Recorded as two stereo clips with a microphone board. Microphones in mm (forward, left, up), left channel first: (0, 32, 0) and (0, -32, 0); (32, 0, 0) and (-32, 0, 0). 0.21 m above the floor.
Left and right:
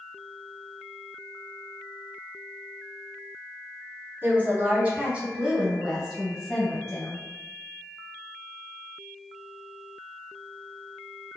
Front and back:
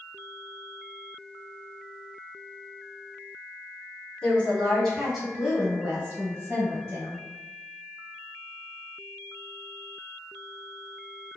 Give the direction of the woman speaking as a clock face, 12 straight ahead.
2 o'clock.